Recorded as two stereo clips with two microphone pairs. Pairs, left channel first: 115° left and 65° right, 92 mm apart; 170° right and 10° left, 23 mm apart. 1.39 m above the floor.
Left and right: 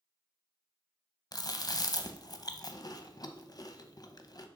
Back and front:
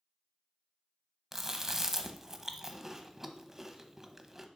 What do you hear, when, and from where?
1.3 s chewing: 85° left, 0.7 m